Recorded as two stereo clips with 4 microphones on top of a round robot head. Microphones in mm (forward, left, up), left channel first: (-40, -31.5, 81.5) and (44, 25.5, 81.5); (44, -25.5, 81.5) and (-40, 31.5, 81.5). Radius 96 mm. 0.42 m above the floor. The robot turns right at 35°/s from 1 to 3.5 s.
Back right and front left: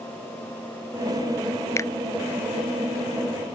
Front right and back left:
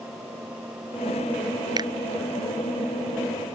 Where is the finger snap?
165° left; by 1.9 s 170° left.